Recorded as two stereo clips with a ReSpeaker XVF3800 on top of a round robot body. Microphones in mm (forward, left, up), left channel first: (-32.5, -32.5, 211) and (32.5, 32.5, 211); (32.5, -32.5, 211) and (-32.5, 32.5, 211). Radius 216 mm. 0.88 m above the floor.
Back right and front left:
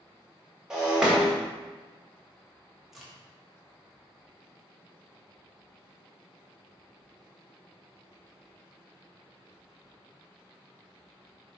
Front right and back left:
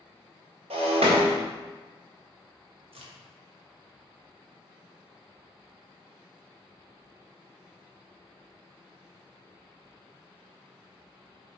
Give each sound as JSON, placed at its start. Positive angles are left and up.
{"t": 0.7, "sound": "breaking glass", "azimuth_deg": 130, "distance_m": 1.5}
{"t": 2.9, "sound": "a crack", "azimuth_deg": 135, "distance_m": 1.8}